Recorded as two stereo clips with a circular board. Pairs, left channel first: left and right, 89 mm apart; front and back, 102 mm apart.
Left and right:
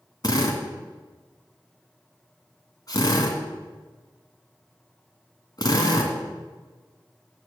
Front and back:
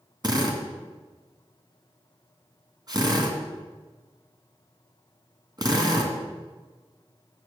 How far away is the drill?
About 1.8 m.